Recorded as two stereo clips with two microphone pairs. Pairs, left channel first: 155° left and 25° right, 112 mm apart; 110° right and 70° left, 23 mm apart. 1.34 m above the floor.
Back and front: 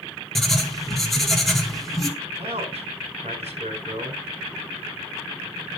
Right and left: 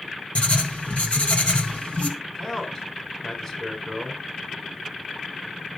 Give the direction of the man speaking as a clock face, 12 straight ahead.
1 o'clock.